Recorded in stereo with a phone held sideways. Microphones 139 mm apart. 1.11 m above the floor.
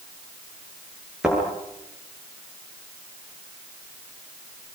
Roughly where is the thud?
Centre.